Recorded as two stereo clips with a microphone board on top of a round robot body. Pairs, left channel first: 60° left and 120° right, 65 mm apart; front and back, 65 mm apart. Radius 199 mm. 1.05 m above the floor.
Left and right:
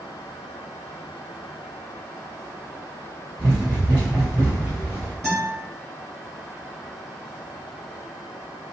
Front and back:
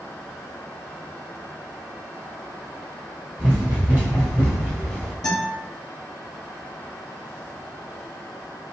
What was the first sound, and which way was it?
Running footsteps, 140° right.